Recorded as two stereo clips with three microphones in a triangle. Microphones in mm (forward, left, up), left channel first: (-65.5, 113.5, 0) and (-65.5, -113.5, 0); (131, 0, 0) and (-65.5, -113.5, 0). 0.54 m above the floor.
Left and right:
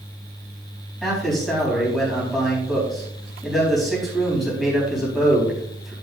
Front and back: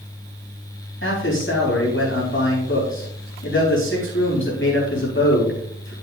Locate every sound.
1.0 s a man speaking: straight ahead, 4 m